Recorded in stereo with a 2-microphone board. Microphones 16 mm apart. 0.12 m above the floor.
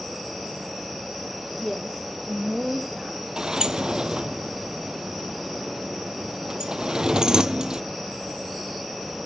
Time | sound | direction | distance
1.6 | a woman speaking | 5° right (ahead or behind) | 3 m
3.4 | a sliding door | 55° right (ahead or behind) | 0.5 m